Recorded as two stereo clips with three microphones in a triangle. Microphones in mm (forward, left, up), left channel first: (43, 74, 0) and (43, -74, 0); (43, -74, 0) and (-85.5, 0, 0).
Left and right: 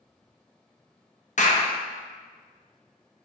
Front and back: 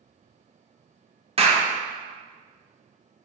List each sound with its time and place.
1.4 s a clap: 110° left, 0.7 m